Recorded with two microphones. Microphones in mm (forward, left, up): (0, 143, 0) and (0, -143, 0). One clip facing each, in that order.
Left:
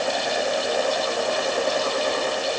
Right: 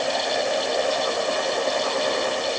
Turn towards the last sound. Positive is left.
No sound to turn to.